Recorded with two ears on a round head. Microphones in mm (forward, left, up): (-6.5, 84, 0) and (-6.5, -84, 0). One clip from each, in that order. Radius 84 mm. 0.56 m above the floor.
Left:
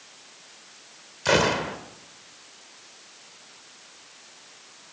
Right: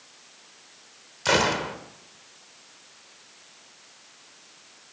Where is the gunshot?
15° right (ahead or behind), 2.5 m.